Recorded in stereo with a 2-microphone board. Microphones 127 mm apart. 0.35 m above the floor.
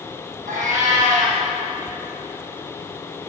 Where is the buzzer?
I don't hear a buzzer.